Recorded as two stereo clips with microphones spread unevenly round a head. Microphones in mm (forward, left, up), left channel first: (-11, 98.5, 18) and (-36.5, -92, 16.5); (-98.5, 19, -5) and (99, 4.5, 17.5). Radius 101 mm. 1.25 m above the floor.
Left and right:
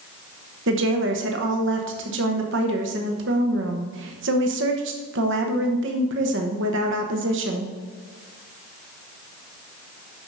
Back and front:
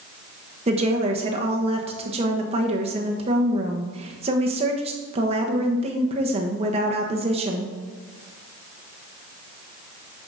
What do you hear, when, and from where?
0.7 s a woman speaking: 70° right, 1.2 m